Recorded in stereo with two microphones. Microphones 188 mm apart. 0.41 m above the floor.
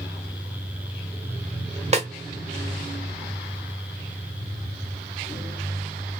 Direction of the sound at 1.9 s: 35° right (ahead or behind).